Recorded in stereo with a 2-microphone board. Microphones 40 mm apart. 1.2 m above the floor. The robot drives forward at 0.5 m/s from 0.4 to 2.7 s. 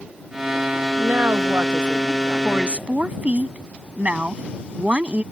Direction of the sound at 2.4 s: 35° right (ahead or behind).